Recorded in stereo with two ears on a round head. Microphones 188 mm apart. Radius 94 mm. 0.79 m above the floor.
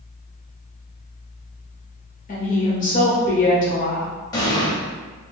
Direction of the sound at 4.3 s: 20° left (ahead or behind).